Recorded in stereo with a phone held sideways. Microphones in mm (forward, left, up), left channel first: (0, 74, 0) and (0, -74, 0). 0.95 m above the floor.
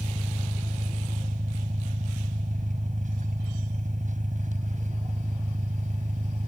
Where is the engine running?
60° right (ahead or behind).